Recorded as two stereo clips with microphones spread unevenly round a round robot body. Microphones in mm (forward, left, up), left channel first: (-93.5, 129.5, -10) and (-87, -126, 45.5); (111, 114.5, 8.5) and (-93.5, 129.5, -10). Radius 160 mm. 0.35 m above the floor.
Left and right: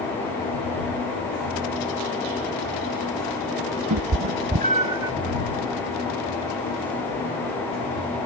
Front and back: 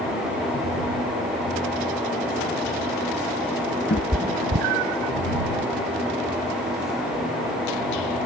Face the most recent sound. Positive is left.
turn(degrees=-165)